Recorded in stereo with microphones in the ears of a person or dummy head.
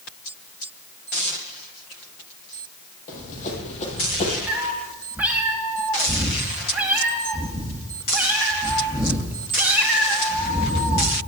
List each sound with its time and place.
3.1 s running footsteps: 45° left (ahead or behind), 3.5 m; by 4.4 s 35° left (ahead or behind), 3 m
4.5 s a cat meowing: 5° right (ahead or behind), 1.5 m